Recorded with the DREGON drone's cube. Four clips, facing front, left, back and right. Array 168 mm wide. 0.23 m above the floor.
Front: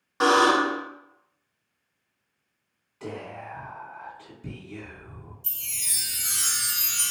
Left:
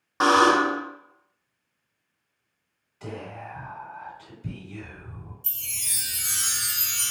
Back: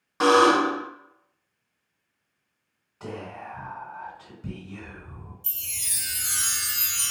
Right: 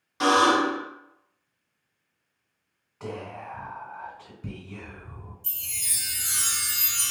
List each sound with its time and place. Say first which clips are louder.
0.2 s a buzzer: left 2 dB, back 2 dB; 90° left, 0.9 m
3.0 s whispering: right 1 dB, even; 115° right, 1.6 m
5.4 s a chime: even, even; 130° right, 1.8 m